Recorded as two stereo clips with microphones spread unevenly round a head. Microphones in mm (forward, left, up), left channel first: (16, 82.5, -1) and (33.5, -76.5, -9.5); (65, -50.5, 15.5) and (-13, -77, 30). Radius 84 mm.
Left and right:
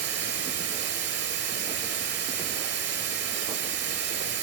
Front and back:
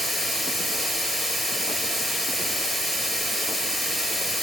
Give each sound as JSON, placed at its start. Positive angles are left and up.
{"t": 0.0, "sound": "running water", "azimuth_deg": -70, "distance_m": 5.5}